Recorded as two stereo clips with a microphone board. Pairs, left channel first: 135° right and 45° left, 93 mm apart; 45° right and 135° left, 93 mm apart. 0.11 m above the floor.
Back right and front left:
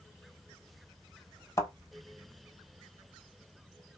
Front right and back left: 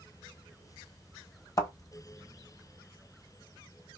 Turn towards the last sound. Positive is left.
turn(degrees=-90)